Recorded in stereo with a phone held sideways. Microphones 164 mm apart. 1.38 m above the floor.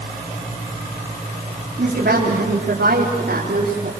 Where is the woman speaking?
85° right, 4 m; by 3.9 s 75° right (ahead or behind), 4.5 m.